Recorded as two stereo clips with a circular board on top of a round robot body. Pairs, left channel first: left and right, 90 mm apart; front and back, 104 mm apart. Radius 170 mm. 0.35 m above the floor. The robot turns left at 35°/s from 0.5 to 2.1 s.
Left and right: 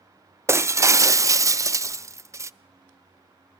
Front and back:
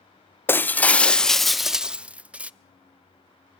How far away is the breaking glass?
About 0.6 m.